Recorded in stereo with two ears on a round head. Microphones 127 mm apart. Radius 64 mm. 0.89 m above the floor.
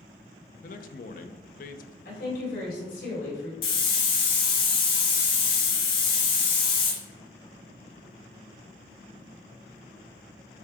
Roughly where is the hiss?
Left.